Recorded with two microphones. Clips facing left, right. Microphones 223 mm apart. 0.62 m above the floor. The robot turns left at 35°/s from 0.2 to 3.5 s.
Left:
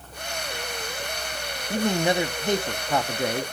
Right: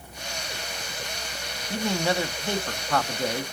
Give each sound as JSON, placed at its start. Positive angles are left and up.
{"t": 1.7, "sound": "a man speaking", "side_deg": 15, "distance_m": 0.5}